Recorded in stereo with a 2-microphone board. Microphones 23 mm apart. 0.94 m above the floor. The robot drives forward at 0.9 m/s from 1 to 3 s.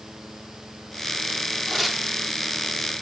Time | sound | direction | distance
1.7 | tearing paper | centre (ahead or behind) | 3 m